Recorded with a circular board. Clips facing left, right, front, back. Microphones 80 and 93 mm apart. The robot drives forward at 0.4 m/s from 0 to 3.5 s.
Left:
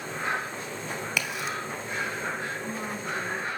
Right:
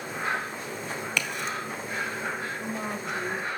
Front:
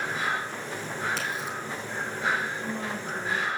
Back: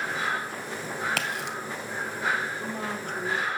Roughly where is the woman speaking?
Behind.